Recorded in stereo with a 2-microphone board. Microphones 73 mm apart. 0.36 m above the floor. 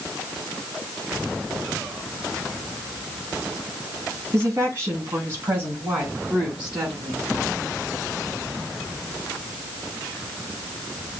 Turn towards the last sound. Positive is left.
turn(degrees=-15)  # may be behind; listen again after turning